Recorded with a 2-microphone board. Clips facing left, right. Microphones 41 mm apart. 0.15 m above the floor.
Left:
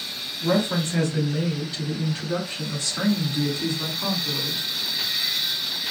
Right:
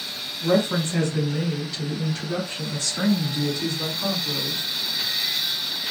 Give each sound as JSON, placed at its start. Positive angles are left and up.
{"t": 0.4, "sound": "a woman speaking", "side_deg": 15, "distance_m": 3.0}